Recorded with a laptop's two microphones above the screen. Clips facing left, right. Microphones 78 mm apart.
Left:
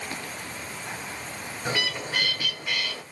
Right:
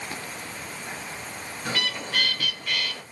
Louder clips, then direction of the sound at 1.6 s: Left 1 dB; 15° left (ahead or behind).